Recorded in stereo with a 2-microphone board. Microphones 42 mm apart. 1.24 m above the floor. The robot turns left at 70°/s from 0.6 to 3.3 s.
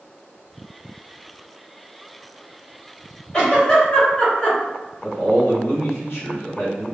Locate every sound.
3.3 s a giggle: 20° left (ahead or behind), 1.7 m
5.0 s a man speaking: 80° left, 1.8 m